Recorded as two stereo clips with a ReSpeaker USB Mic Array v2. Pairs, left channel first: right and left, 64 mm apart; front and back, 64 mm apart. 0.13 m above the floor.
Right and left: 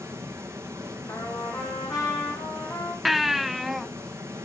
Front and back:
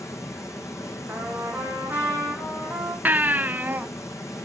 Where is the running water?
40° left, 2.5 m.